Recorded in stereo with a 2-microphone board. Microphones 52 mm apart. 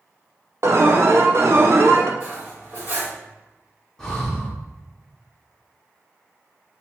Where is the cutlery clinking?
45° right (ahead or behind), 1.4 m.